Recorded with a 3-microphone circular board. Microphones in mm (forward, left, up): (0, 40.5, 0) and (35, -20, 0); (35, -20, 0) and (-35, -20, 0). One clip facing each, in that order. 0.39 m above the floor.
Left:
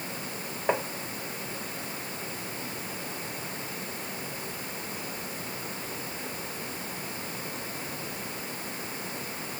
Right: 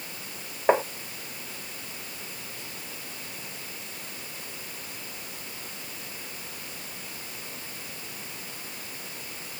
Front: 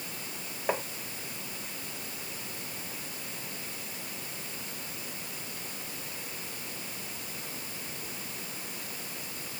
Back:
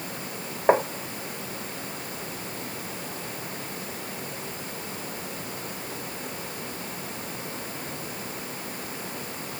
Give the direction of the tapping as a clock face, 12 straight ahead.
4 o'clock.